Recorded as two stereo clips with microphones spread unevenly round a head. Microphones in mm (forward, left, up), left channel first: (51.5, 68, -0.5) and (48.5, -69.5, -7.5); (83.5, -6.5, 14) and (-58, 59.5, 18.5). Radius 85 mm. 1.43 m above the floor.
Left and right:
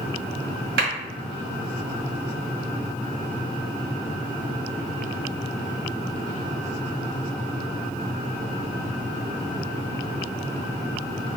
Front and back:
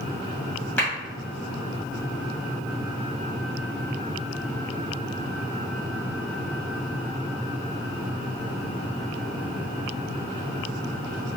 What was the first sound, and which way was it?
A clap, 105° right.